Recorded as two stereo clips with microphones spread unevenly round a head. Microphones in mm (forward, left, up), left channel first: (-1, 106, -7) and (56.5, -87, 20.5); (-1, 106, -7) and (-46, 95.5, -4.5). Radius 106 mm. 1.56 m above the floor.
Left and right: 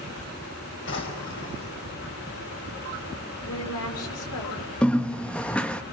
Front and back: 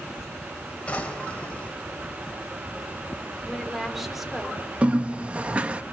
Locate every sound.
0.9 s a drawer: 80° left, 5 m
3.5 s a woman speaking: 105° left, 5.5 m
4.8 s a bird: 160° right, 0.9 m